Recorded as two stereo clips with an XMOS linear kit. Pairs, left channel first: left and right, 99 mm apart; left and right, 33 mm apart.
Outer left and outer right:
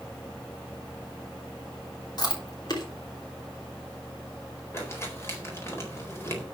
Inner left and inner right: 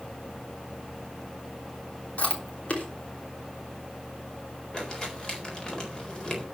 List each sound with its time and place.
2.2 s chewing: 45° left (ahead or behind), 3 m
4.7 s crumpling: 25° left (ahead or behind), 4 m